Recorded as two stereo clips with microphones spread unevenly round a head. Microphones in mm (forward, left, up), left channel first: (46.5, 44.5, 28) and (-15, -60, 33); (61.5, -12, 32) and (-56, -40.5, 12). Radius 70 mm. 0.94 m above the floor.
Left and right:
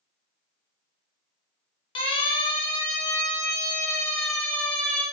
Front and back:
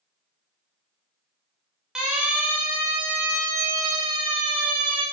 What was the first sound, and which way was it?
A siren, 110° left.